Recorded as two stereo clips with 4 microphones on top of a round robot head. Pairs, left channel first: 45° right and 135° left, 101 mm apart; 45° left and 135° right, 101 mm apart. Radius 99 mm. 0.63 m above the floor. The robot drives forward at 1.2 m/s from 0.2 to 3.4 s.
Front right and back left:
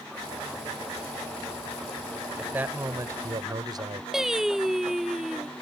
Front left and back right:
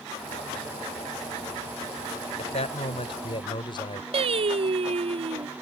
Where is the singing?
135° right.